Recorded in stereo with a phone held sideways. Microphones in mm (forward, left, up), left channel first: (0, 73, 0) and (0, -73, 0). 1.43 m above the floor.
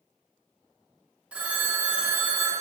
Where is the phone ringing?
10° right (ahead or behind), 0.6 m.